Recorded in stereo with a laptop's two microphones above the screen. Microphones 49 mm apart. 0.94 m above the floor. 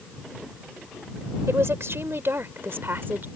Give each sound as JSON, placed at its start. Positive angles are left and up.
{"t": 1.5, "sound": "a woman speaking", "side_deg": -65}